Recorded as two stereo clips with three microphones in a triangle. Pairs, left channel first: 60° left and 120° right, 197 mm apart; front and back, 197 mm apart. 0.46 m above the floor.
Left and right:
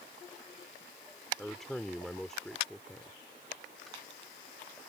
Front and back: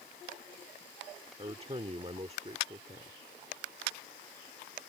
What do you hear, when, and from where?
1.4 s a man speaking: 145° left